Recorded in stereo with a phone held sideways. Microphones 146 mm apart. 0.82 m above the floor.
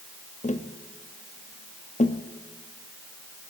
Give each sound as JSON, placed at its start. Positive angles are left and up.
{"t": 0.4, "sound": "tapping", "side_deg": 55, "distance_m": 0.8}